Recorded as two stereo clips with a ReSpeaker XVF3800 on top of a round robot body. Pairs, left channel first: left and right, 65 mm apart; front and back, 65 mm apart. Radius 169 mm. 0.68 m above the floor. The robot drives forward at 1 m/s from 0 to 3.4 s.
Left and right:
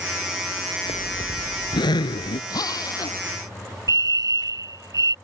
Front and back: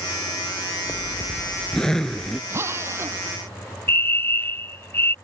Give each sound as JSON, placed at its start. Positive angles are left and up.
{"t": 0.9, "sound": "a zipper", "azimuth_deg": 75}
{"t": 2.5, "sound": "a drill", "azimuth_deg": 120}
{"t": 3.9, "sound": "a fire alarm", "azimuth_deg": -60}